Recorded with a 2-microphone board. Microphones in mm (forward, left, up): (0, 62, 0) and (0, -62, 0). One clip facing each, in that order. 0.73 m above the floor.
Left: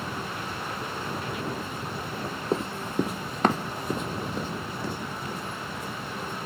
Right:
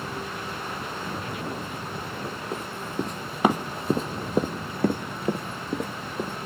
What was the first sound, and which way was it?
Running footsteps, 30° left (ahead or behind).